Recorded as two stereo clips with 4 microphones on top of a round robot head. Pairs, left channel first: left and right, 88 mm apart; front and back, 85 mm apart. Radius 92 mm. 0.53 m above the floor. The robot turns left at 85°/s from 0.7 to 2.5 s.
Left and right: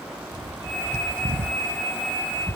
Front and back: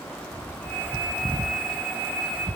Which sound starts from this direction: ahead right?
A bird, at 0.3 s.